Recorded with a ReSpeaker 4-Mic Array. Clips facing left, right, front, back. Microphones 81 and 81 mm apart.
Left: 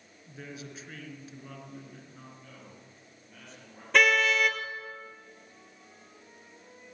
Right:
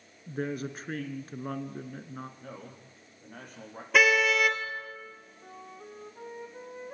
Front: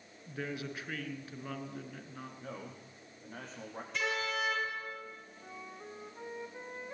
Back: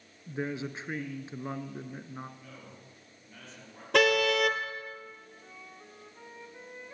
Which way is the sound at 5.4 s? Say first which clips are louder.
Right 9 dB, front 7 dB; 70° right.